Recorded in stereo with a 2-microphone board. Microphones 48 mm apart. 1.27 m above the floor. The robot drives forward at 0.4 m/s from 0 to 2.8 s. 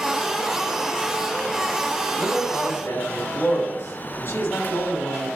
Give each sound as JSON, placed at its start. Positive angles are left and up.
{"t": 2.2, "sound": "a man speaking", "side_deg": 60, "distance_m": 5.5}